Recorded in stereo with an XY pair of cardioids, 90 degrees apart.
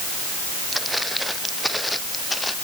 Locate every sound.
0.7 s footsteps: 5° right; by 2.5 s 15° left